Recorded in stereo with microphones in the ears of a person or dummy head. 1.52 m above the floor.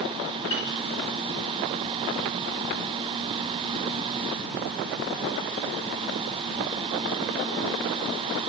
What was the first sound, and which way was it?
A piano, 25° left (ahead or behind).